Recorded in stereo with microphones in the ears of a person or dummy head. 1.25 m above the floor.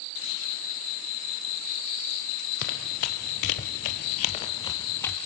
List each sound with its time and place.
2.6 s running footsteps: 50° left (ahead or behind), 2 m; by 5.2 s 5° left (ahead or behind), 1.9 m